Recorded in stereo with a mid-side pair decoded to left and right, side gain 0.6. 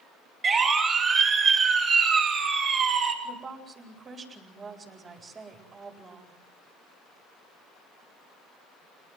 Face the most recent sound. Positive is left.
turn(degrees=-35)